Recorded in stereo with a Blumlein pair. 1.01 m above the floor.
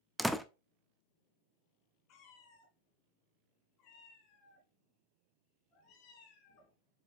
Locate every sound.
0.2 s a door slam: straight ahead, 0.6 m
2.1 s a cat meowing: 35° left, 2.5 m